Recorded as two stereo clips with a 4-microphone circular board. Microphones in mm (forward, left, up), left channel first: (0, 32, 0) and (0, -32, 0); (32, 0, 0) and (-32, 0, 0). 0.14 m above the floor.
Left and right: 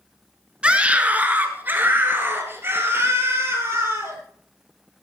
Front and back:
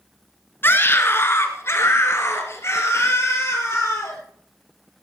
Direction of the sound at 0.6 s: 25° right.